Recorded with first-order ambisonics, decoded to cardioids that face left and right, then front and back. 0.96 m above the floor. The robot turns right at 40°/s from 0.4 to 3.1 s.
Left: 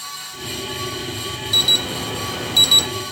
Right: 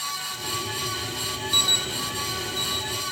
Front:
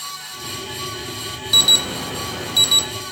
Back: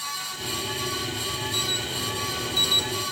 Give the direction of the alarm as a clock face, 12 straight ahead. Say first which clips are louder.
Left 5 dB, front 15 dB; 12 o'clock.